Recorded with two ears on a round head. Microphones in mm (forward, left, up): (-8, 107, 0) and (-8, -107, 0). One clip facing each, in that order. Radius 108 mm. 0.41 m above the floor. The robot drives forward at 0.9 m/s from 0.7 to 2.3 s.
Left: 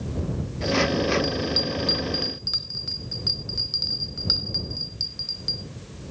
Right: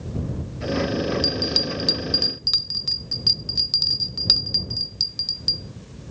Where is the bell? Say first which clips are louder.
Even; 50° right (ahead or behind), 0.9 m.